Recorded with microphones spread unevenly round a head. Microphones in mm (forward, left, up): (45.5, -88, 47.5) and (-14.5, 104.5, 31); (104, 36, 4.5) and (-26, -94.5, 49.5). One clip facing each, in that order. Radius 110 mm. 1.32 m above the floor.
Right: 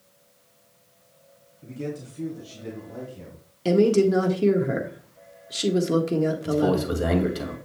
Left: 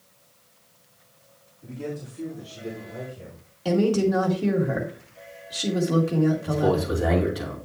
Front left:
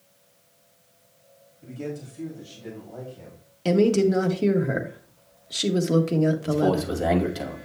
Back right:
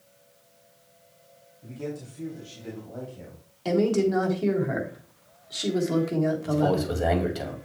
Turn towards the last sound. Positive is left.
turn(degrees=-35)